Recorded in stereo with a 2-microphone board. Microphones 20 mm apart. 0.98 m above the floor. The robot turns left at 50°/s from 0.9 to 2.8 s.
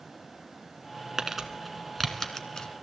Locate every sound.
1.2 s crumpling: 25° right (ahead or behind), 1.7 m; by 2.7 s 40° left (ahead or behind), 1.7 m